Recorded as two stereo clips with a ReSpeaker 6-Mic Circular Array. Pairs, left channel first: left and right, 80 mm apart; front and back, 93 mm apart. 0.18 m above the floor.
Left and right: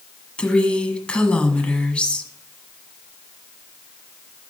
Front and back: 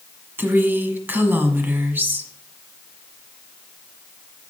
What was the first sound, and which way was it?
A woman speaking, 145° left.